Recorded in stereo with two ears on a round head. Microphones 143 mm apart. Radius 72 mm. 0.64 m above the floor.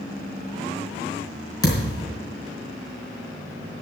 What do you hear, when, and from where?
1.6 s a thud: 25° left (ahead or behind), 4 m